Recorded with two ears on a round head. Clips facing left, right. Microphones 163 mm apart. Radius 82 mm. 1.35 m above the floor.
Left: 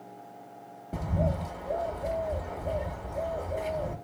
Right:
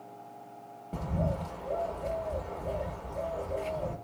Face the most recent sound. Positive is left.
turn(degrees=10)  # may be behind; listen again after turning